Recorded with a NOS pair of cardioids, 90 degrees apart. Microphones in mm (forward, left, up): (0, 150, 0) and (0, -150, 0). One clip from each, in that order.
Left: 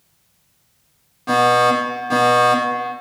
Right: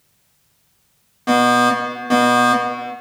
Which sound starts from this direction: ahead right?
A fire alarm, at 1.3 s.